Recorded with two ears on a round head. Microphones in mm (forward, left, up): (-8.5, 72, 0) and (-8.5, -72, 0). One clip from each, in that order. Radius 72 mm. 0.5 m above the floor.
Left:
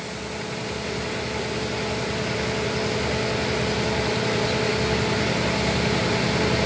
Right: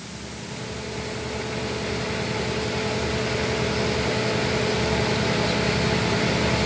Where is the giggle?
No giggle in this recording.